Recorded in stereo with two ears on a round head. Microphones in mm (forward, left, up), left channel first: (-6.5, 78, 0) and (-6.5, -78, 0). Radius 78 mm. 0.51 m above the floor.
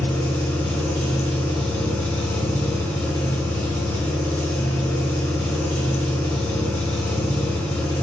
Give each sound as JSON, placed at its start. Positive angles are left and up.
{"t": 0.0, "sound": "an engine running", "side_deg": 10, "distance_m": 1.9}